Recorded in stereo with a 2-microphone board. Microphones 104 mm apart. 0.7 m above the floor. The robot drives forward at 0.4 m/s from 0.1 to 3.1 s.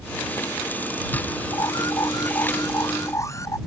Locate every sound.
1.5 s an alarm: 35° left (ahead or behind); by 3.6 s 30° left (ahead or behind)